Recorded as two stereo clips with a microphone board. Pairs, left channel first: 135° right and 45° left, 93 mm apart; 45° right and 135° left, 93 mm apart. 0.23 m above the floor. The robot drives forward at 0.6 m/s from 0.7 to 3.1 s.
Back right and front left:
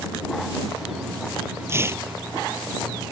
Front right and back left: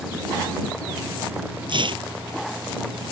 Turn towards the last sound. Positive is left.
turn(degrees=115)